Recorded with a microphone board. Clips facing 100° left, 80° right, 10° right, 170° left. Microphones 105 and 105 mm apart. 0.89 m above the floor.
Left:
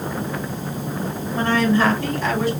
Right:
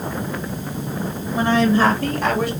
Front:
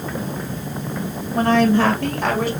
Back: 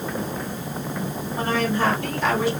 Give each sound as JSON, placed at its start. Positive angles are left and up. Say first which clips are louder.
{"t": 1.4, "sound": "a woman speaking", "louder": "right 2 dB, front 8 dB", "azimuth_deg": 0, "distance_m": 1.0}